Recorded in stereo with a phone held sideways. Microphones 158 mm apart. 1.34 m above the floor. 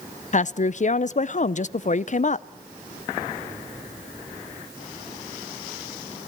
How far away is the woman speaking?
About 0.5 m.